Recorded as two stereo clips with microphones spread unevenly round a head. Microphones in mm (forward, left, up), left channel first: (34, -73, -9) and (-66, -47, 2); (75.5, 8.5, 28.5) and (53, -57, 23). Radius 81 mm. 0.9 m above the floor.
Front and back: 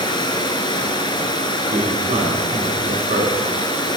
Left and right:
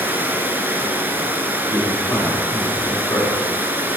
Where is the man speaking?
135° left, 2 m.